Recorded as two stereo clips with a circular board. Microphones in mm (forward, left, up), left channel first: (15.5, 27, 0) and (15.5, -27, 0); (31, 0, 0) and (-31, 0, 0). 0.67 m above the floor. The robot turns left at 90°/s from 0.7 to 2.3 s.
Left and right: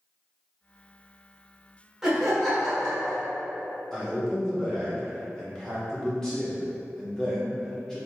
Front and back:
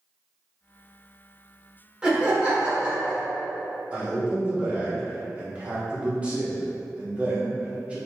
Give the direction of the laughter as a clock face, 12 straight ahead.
5 o'clock.